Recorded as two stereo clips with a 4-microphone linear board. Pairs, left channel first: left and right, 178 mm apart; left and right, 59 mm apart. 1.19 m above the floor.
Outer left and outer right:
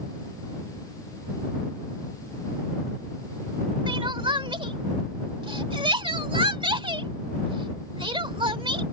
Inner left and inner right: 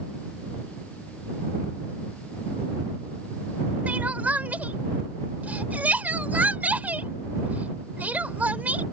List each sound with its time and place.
3.9 s crying: 30° right (ahead or behind)